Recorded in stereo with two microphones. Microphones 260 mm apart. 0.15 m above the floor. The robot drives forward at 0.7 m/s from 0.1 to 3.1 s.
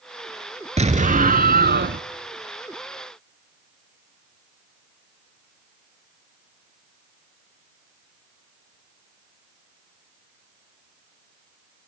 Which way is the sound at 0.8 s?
25° right (ahead or behind).